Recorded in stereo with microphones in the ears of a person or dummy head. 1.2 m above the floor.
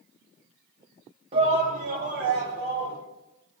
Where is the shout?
35° right (ahead or behind), 2.0 m; by 3.0 s 65° right (ahead or behind), 4 m.